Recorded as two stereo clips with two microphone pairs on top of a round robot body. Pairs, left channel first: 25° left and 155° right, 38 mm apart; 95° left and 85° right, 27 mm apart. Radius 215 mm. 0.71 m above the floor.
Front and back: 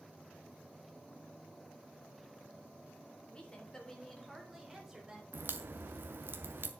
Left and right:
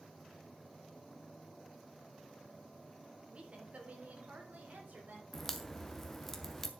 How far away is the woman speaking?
About 3.5 m.